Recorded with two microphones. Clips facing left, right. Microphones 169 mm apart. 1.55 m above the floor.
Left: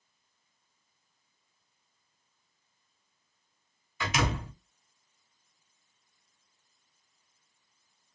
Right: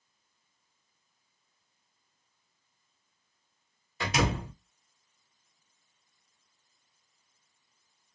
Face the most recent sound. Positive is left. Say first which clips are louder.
# right 2 dB
turn(degrees=-35)  # may be behind; listen again after turning